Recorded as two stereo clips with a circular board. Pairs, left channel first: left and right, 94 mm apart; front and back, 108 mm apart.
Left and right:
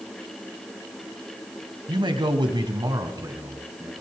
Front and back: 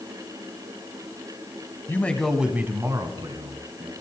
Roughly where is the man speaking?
Ahead right.